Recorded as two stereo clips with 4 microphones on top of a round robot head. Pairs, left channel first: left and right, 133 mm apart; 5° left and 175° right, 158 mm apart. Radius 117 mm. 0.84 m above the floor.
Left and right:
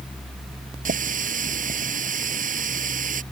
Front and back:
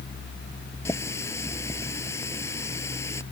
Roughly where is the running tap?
Right.